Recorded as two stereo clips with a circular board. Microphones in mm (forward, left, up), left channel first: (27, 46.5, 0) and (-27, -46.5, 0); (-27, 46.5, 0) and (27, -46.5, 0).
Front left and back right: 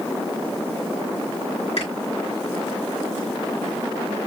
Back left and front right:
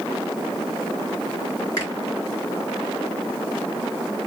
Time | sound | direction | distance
1.8 | a finger snap | 70° left | 3.5 m